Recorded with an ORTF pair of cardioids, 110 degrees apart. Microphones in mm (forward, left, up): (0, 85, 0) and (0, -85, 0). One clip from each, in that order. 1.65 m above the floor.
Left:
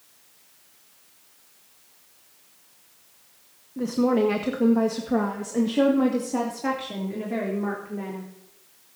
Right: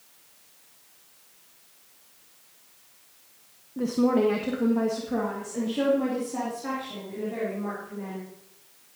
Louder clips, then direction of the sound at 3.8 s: Left 1 dB; straight ahead.